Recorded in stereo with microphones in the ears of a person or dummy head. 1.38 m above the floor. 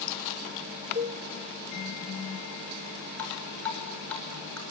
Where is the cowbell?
30° right (ahead or behind), 1.2 m.